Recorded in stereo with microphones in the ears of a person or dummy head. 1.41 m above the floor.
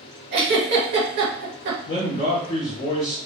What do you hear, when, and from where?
0.3 s a giggle: 55° right (ahead or behind), 0.7 m
1.9 s a man speaking: 45° left (ahead or behind), 0.9 m